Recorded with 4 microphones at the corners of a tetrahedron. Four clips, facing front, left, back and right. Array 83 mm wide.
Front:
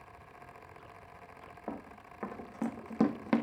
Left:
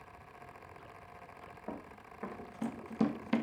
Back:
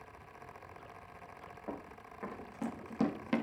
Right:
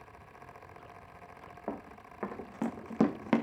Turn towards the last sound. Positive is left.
turn(degrees=-65)